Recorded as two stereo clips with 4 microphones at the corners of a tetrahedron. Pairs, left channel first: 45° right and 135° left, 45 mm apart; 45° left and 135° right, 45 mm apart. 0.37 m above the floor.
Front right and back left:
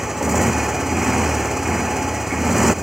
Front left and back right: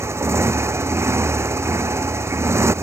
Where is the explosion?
I don't hear an explosion.